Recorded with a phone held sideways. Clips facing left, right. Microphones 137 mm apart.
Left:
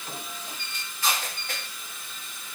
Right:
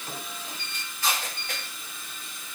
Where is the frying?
No frying in this recording.